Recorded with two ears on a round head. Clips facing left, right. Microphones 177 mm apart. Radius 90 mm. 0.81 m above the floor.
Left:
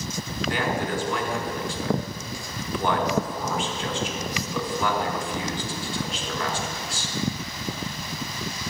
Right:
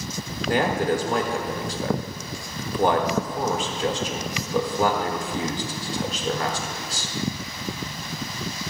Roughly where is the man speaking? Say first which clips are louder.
Right 5 dB; right.